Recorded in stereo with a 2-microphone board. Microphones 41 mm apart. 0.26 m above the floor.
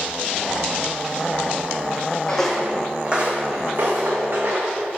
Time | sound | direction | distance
2.3 | footsteps | 20° left (ahead or behind) | 0.7 m